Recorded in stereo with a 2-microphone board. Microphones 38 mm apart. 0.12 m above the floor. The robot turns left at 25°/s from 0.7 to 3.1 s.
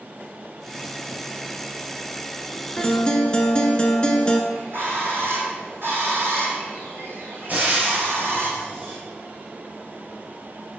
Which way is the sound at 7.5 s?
45° right (ahead or behind).